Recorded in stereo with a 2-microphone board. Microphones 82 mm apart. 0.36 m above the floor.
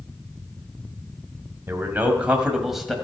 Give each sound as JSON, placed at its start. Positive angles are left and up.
{"t": 1.7, "sound": "a man speaking", "side_deg": -30, "distance_m": 1.9}